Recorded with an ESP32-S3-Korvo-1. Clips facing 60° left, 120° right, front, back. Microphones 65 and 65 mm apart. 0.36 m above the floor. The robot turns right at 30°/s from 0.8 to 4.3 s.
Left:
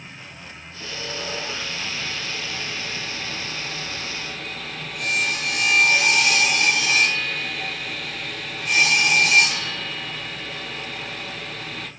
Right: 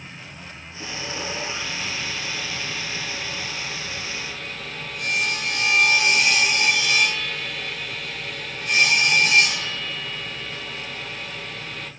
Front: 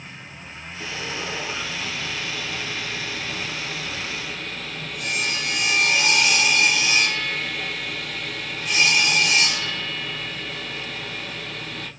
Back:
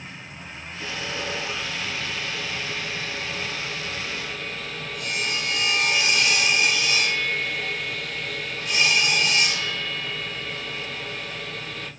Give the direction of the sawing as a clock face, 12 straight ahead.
3 o'clock.